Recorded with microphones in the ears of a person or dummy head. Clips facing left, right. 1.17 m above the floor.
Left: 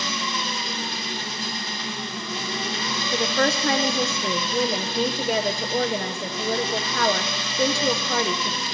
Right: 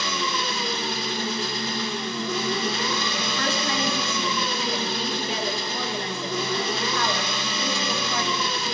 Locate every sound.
0.0 s an engine running: 70° right (ahead or behind), 2.5 m
3.1 s a woman speaking: 40° left (ahead or behind), 0.7 m